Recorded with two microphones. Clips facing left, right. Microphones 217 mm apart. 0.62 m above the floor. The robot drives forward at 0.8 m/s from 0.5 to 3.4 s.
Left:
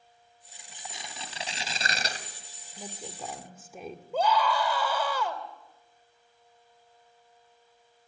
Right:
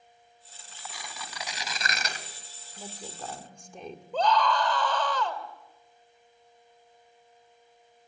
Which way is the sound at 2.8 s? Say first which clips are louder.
Left 1 dB; 5° left (ahead or behind).